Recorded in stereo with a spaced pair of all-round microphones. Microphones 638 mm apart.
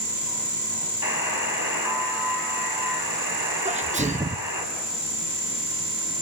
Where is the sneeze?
10° right (ahead or behind), 0.5 m.